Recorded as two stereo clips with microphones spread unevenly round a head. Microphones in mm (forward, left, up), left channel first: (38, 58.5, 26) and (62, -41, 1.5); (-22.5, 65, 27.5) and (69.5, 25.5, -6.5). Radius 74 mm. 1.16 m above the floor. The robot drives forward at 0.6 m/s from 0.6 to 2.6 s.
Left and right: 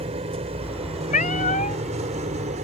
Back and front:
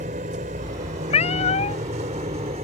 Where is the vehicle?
50° right; by 2.6 s 70° right.